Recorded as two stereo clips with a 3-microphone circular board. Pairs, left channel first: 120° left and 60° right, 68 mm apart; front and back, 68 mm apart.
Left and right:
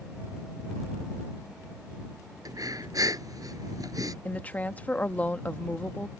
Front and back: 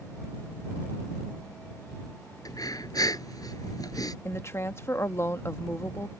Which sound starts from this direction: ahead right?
Breathing, at 2.5 s.